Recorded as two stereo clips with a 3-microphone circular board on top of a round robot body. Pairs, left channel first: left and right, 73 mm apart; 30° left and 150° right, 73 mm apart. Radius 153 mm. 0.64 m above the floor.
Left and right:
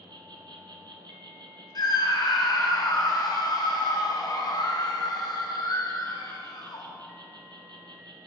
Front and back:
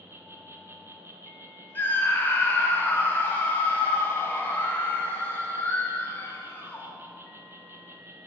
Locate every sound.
0.0 s an insect: 95° right, 0.9 m
1.8 s a scream: 90° left, 1.5 m